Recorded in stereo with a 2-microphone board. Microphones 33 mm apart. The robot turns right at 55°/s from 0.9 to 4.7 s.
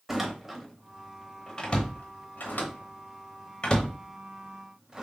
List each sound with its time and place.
0.1 s a door slam: 10° right (ahead or behind), 0.9 m; by 5.0 s 20° right (ahead or behind), 0.9 m